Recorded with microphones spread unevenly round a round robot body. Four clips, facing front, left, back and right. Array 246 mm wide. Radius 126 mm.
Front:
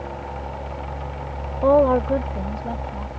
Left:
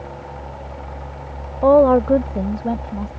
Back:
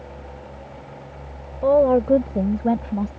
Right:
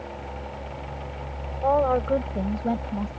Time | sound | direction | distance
1.6 | a woman speaking | 85° left | ?